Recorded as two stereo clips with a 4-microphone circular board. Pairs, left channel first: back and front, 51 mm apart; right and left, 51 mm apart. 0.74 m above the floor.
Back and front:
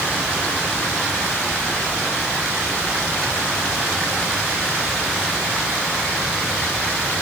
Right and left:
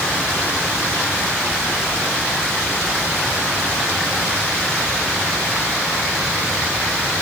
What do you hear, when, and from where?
Only background noise.